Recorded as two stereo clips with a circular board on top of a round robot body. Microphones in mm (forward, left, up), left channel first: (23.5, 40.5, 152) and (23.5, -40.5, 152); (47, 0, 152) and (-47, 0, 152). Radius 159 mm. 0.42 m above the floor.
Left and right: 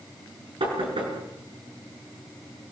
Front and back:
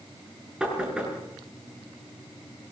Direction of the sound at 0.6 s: 100° right.